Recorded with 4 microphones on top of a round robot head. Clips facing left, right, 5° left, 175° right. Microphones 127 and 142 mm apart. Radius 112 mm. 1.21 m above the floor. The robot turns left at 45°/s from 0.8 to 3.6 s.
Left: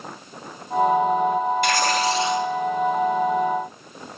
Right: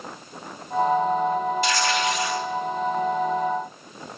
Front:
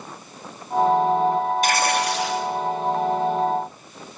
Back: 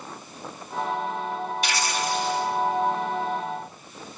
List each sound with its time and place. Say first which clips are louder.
1.6 s tearing paper: left 2 dB, front 6 dB; 50° left, 2.5 m; by 2.5 s 15° left, 2.5 m